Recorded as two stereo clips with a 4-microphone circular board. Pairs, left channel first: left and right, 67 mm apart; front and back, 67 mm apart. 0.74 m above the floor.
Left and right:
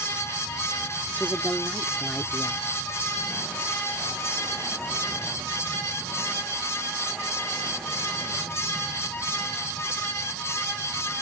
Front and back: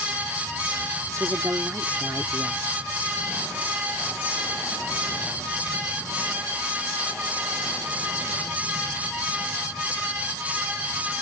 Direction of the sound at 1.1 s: 145° left.